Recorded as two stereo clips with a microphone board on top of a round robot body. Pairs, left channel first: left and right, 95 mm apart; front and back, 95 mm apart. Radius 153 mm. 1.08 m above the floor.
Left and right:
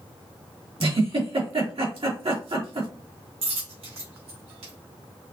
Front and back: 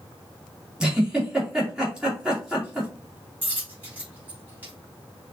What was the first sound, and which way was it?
A giggle, 100° right.